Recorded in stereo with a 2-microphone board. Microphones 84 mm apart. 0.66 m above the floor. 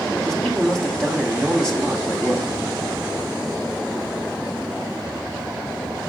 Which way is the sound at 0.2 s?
5° left (ahead or behind).